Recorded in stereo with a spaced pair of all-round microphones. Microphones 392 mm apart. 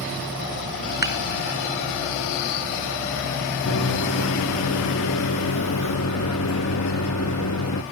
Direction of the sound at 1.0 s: 50° right (ahead or behind).